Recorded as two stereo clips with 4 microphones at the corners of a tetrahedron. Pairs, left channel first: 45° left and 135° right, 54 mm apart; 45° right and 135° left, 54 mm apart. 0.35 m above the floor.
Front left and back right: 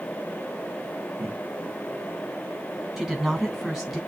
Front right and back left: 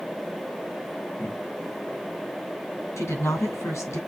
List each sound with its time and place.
1.2 s laughter: 90° right, 5 m
3.0 s a woman speaking: 55° right, 3 m